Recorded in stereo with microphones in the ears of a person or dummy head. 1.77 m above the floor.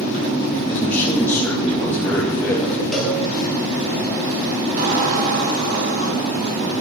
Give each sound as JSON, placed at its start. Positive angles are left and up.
{"t": 0.7, "sound": "a man speaking", "side_deg": 10, "distance_m": 2.5}
{"t": 2.9, "sound": "a cowbell", "side_deg": 5, "distance_m": 2.0}
{"t": 4.8, "sound": "a squeak", "side_deg": -50, "distance_m": 5.0}